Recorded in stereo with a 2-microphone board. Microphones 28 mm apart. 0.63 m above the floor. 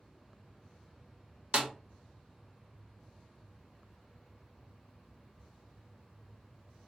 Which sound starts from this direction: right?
A snare drum, at 1.5 s.